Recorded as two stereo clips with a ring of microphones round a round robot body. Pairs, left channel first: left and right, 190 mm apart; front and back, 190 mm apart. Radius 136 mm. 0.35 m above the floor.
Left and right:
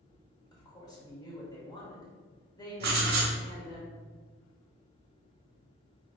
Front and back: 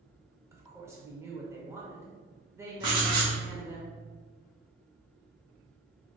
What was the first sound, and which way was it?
A woman speaking, 125° left.